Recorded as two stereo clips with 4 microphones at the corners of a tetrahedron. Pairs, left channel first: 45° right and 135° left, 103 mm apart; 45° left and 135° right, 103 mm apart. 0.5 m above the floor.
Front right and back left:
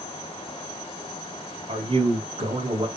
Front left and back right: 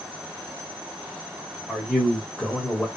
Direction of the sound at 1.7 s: 125° left.